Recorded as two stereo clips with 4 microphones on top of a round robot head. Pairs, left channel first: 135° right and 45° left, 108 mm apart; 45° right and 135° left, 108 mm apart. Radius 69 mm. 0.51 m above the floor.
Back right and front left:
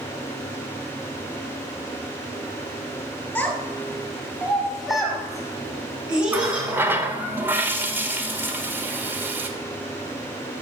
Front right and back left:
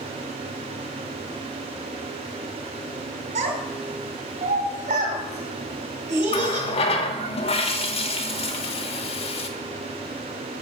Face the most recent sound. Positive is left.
turn(degrees=-25)